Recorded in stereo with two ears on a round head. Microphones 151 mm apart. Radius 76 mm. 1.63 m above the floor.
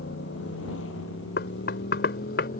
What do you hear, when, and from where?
0.0 s a motorcycle: 75° left (ahead or behind); by 2.6 s 50° left (ahead or behind)
1.4 s knocking: 65° left (ahead or behind)